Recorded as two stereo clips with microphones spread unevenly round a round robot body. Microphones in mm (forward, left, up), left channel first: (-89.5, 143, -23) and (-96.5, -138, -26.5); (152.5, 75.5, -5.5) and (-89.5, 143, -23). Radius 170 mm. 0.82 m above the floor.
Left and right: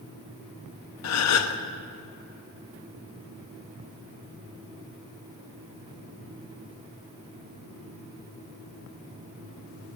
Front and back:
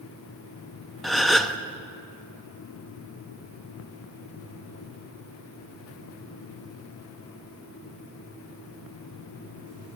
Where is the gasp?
75° left, 1.1 m.